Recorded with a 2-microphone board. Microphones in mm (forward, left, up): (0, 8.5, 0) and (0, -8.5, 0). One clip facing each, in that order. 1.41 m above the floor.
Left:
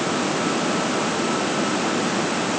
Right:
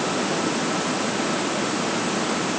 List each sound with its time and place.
Only background noise.